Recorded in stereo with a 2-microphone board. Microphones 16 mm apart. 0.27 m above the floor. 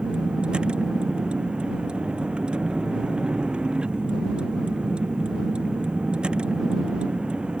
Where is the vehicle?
80° right.